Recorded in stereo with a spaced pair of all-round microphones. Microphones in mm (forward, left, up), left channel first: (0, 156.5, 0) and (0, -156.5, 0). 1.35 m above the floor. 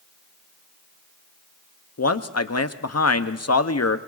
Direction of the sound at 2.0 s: 55° left (ahead or behind).